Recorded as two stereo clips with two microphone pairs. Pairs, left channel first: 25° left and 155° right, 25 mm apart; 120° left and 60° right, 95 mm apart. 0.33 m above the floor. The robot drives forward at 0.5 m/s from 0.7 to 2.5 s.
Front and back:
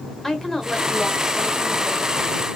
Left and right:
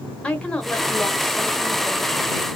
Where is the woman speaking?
65° left, 0.9 m; by 2.1 s 155° left, 1.1 m.